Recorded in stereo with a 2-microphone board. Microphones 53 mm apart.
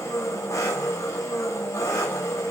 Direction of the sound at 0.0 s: 85° left.